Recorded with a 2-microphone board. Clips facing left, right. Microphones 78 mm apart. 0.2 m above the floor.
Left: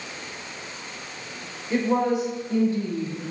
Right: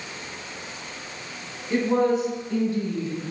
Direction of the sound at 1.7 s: 5° left (ahead or behind).